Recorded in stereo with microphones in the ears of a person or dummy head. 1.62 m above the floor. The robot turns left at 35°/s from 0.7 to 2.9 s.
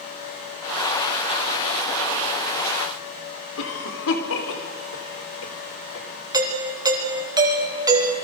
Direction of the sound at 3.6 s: 75° left (ahead or behind).